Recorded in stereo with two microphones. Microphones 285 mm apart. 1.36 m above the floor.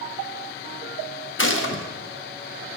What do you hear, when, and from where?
1.4 s a gunshot: 45° left (ahead or behind), 0.6 m